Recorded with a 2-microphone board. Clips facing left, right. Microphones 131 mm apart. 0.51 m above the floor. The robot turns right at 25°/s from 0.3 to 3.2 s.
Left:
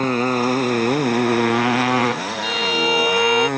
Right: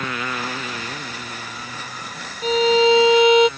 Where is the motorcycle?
40° left (ahead or behind); by 3.6 s 65° left (ahead or behind).